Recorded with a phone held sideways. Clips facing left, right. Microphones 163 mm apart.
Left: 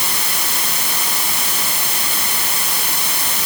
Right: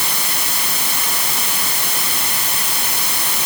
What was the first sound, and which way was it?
Only background noise.